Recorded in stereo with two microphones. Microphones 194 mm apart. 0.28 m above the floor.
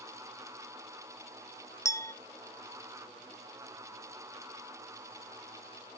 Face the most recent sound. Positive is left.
turn(degrees=15)  # may be behind; listen again after turning